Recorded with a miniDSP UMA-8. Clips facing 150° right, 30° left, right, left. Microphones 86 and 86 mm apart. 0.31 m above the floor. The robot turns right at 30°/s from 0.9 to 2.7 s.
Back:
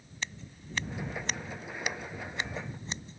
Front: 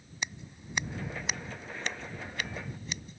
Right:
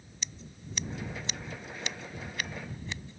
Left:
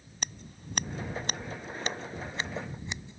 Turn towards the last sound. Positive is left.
turn(degrees=155)